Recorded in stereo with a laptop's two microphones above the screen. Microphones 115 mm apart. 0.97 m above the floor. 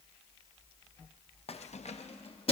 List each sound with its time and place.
1.5 s keys jangling: 55° left (ahead or behind), 0.5 m